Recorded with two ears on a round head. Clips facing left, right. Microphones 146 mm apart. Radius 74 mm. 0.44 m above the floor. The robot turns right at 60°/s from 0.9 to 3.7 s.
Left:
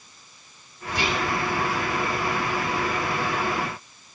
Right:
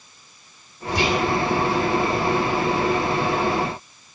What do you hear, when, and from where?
0.9 s whispering: 55° right (ahead or behind), 2.5 m; by 1.3 s 40° right (ahead or behind), 2.5 m